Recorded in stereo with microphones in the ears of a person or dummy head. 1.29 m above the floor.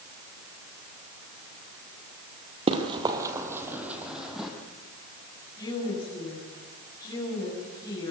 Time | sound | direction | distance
2.7 | running footsteps | 30° right (ahead or behind) | 1.7 m
5.6 | a woman speaking | 20° left (ahead or behind) | 7 m